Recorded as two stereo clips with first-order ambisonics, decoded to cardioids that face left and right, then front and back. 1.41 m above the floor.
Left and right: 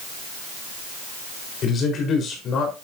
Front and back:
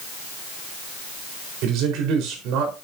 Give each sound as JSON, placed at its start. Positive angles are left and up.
{"t": 1.6, "sound": "a man speaking", "azimuth_deg": 150, "distance_m": 4.5}